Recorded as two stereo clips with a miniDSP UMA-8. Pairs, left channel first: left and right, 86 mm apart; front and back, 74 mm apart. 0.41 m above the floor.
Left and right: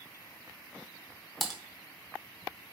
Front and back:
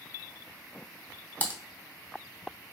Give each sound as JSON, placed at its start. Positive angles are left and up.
{"t": 1.4, "sound": "typing on a keyboard", "azimuth_deg": 0, "distance_m": 0.7}